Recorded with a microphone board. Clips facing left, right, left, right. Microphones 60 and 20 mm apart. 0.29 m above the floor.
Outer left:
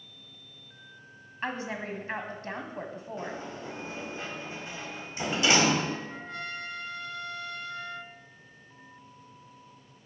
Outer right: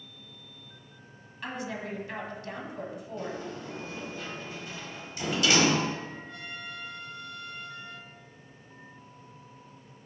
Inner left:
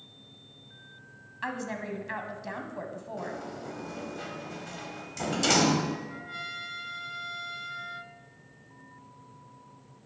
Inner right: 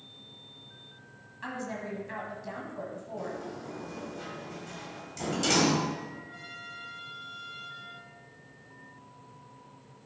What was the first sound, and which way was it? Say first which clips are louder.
A woman speaking: outer left 2 dB, inner left 2 dB; 35° left (ahead or behind).